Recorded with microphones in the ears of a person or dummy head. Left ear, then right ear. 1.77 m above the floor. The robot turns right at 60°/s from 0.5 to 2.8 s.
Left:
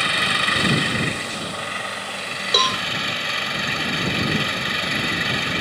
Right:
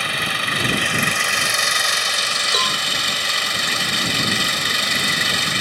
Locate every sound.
0.0 s an engine running: 165° right; by 5.6 s 30° right
2.5 s a cowbell: centre (ahead or behind); by 2.8 s 20° left (ahead or behind)